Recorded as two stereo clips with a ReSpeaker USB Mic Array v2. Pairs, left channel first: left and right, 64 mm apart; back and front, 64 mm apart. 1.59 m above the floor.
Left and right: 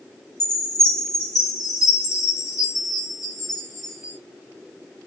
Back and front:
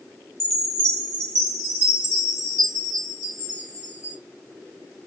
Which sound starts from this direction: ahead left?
A chime, at 0.4 s.